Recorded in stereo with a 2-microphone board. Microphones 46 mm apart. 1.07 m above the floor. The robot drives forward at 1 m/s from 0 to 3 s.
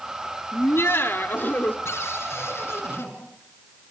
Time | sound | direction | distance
0.5 | laughter | 75° left (ahead or behind) | 1.7 m
1.9 | a cupboard door | 75° left (ahead or behind) | 5.5 m